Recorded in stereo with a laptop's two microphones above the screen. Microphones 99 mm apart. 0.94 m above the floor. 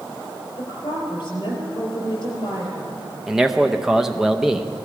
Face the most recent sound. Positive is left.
turn(degrees=-5)  # may be behind; listen again after turning